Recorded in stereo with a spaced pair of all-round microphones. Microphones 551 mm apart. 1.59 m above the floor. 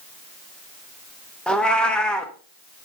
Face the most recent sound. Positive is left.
turn(degrees=0)  # may be behind; listen again after turning